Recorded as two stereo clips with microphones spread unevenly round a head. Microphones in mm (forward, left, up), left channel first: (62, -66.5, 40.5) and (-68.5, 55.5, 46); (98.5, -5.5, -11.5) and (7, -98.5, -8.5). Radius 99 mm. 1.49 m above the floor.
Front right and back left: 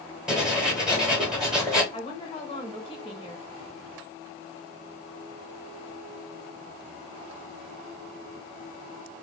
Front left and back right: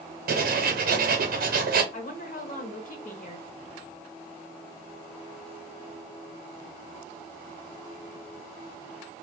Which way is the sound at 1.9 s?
25° left.